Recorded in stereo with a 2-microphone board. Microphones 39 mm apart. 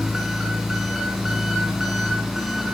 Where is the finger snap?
I don't hear a finger snap.